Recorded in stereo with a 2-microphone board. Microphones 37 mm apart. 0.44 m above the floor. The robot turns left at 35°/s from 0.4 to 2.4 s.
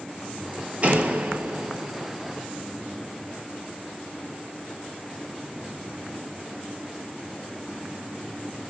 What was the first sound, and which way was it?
A door slam, 35° right.